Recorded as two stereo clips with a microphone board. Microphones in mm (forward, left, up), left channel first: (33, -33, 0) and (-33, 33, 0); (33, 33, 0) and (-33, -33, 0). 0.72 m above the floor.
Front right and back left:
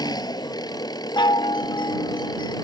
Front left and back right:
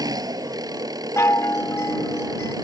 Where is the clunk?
No clunk in this recording.